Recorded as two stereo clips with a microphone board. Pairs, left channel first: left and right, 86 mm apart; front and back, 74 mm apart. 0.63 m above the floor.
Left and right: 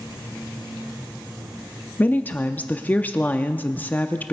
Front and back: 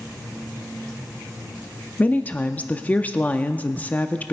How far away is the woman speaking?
About 0.6 m.